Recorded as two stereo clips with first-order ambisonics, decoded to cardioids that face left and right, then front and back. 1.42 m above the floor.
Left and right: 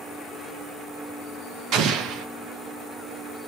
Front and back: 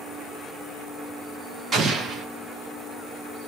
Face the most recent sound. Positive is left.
turn(degrees=-120)